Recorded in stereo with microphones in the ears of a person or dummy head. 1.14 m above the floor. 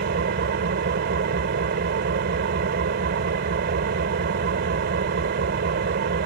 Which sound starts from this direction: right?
An engine running, at 0.0 s.